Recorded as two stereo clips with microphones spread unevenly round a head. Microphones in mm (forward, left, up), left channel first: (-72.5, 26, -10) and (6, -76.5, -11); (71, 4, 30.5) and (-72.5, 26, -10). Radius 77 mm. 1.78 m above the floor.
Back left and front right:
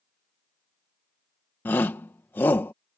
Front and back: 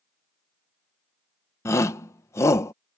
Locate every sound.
1.6 s a shout: 50° left